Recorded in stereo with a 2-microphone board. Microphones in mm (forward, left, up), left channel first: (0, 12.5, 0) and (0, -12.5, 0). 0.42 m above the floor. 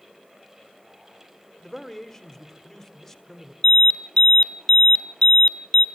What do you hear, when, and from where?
1.6 s a man speaking: 10° left (ahead or behind), 1.2 m
3.6 s an alarm: 35° left (ahead or behind), 1.2 m